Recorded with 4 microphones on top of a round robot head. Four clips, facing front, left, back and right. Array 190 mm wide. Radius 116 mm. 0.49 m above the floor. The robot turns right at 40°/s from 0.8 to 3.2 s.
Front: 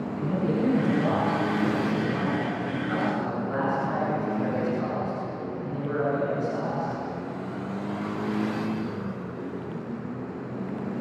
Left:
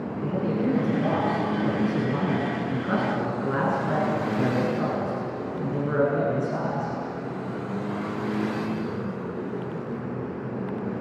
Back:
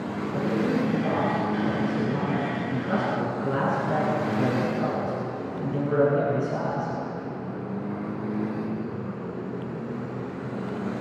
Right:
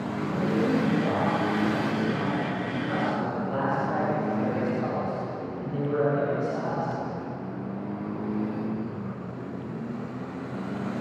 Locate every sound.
0.2 s a man speaking: 15° left, 7 m; by 6.9 s 110° left, 7 m